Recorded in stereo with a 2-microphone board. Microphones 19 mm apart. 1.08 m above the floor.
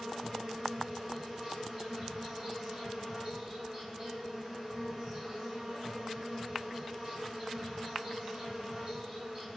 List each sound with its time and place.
0.0 s an insect: 15° right (ahead or behind), 1.5 m